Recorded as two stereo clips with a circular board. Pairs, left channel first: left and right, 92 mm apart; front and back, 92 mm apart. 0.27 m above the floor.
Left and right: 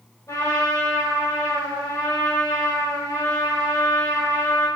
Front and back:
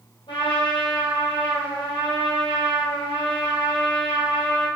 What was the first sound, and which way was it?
A trumpet, 35° left.